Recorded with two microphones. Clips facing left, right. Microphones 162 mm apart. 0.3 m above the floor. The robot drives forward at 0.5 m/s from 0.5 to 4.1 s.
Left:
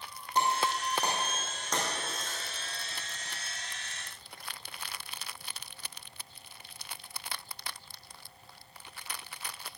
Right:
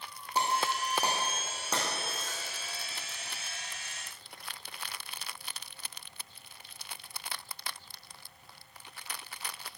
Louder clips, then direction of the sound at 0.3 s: Left 1 dB; 10° right (ahead or behind).